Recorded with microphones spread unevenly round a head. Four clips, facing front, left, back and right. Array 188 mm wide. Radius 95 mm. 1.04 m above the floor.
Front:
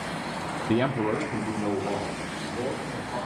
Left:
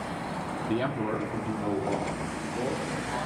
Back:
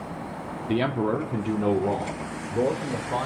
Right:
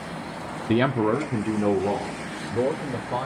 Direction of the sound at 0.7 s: 80° right.